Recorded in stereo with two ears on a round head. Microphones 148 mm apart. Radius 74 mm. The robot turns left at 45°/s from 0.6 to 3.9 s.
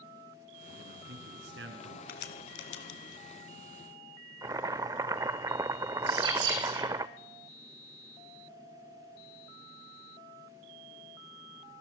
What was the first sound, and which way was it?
A man speaking, 50° right.